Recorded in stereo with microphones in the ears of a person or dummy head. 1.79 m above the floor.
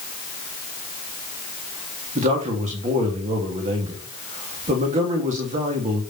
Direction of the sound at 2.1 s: 40° right (ahead or behind).